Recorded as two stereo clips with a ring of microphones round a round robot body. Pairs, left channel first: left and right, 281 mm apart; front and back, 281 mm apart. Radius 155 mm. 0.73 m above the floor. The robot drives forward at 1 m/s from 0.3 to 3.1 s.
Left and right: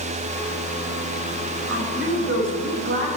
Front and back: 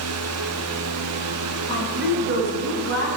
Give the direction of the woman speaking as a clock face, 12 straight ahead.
4 o'clock.